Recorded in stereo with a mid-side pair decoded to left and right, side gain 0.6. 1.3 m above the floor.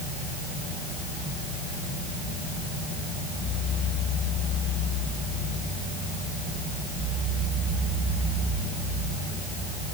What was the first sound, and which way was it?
Only background noise.